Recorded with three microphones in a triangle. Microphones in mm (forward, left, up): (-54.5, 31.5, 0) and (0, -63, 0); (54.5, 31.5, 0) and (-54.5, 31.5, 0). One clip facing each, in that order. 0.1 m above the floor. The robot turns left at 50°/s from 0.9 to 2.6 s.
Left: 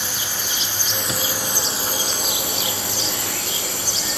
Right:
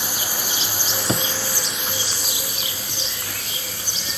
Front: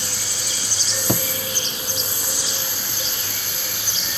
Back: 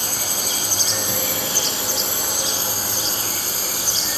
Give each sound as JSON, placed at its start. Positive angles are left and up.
{"t": 0.0, "sound": "a drone", "azimuth_deg": -140}
{"t": 1.1, "sound": "a drawer", "azimuth_deg": -10}